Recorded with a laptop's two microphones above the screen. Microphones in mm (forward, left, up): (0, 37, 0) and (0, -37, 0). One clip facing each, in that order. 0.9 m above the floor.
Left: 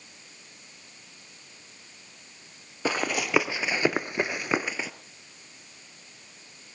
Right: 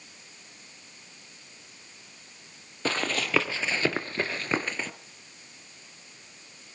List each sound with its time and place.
2.9 s running footsteps: 10° left (ahead or behind), 1.7 m; by 4.9 s 5° left (ahead or behind), 1.1 m